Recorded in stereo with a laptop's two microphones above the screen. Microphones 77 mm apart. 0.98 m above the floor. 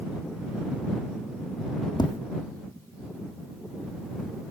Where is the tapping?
70° left (ahead or behind).